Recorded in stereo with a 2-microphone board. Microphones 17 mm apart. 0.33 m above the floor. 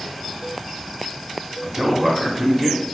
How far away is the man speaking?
About 1.0 m.